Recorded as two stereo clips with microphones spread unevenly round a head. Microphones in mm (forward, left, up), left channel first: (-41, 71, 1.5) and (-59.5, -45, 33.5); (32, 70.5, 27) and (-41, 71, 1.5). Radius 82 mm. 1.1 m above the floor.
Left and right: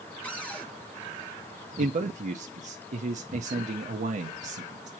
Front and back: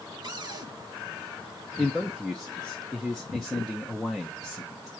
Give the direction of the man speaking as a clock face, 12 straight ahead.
4 o'clock.